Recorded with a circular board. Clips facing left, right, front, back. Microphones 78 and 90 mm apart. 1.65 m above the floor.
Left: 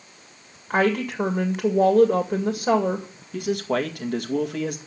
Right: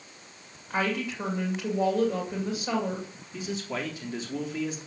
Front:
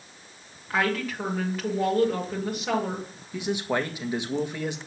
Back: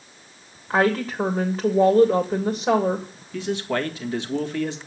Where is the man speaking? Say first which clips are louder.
Left 9 dB, back 2 dB; 75° left, 1.8 m.